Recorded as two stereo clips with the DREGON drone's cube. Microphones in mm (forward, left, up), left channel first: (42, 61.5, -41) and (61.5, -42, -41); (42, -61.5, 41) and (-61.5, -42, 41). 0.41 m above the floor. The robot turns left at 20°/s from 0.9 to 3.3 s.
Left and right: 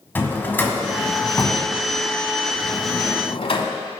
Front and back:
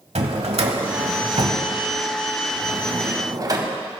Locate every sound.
0.1 s a drawer: 170° left, 0.9 m; by 3.7 s 120° left, 0.9 m